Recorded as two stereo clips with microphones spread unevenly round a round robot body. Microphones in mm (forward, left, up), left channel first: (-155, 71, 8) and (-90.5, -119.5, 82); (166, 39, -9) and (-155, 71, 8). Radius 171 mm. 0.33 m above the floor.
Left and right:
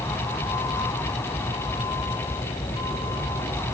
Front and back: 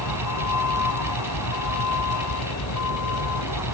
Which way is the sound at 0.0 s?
30° left.